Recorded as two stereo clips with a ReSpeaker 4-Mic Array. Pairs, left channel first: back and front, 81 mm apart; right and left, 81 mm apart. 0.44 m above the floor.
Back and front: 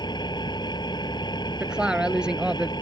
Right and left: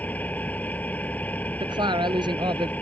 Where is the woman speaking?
80° left.